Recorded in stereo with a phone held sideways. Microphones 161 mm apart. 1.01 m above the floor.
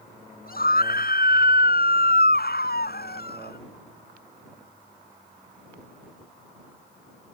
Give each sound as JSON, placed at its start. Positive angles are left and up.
{"t": 0.5, "sound": "a scream", "side_deg": 65}